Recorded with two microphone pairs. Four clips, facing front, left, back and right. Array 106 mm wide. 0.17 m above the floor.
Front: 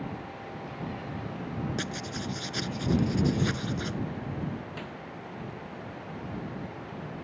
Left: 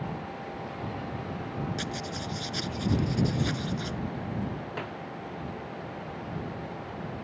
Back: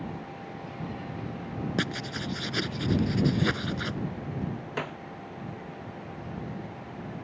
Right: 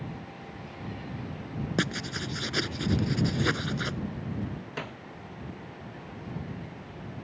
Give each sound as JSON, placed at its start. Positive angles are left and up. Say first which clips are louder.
{"t": 1.8, "sound": "writing", "louder": "right 3 dB, back 3 dB", "azimuth_deg": -120}
{"t": 4.8, "sound": "a snare drum", "louder": "left 2 dB, back 6 dB", "azimuth_deg": 180}